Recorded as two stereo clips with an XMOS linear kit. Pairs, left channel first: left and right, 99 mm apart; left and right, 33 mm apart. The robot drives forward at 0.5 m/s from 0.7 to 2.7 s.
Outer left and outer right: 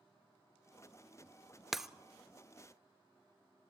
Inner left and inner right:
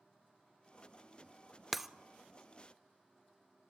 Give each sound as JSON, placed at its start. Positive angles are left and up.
{"t": 1.7, "sound": "breaking glass", "side_deg": 0, "distance_m": 0.7}